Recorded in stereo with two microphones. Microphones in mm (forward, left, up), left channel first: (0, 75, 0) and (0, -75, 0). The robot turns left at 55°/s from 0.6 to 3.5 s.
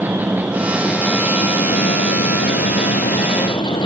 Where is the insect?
170° right, 1.4 m; by 3.9 s 30° left, 1.4 m.